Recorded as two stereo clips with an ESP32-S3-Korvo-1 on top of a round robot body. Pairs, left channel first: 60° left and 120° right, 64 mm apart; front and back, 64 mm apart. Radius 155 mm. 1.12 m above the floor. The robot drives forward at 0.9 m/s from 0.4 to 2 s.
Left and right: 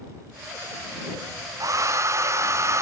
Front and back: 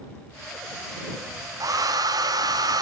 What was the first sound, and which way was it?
A hair dryer, 150° right.